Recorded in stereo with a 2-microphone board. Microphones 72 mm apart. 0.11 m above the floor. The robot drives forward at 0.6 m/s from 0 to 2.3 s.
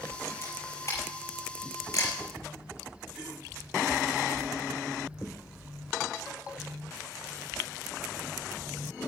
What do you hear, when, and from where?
0.4 s a camera shutter: 40° left (ahead or behind), 5.5 m; by 2.1 s 45° left (ahead or behind), 4.5 m